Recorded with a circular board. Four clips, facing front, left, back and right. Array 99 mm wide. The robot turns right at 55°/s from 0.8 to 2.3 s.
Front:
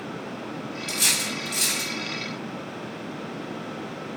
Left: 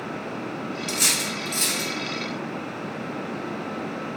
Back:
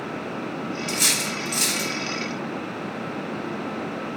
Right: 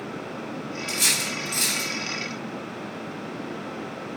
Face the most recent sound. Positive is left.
turn(degrees=-150)